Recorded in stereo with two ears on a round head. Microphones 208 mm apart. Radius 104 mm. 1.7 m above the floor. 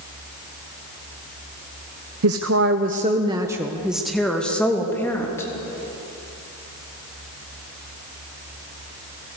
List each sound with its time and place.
2.2 s a woman speaking: 75° right (ahead or behind), 1.0 m; by 5.5 s 15° left (ahead or behind), 3.5 m